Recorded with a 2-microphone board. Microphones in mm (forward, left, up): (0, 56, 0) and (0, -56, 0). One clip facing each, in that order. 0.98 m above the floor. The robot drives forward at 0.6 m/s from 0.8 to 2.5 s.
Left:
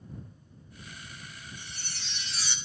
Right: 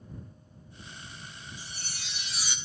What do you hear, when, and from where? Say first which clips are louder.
1.6 s a chime: right 1 dB; 10° right (ahead or behind), 1.7 m; by 2.5 s 15° right (ahead or behind), 1.2 m